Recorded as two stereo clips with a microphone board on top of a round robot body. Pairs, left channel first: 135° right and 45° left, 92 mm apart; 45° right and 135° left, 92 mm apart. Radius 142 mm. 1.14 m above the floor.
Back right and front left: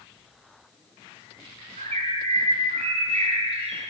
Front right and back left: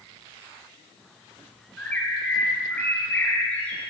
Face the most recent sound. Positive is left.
turn(degrees=30)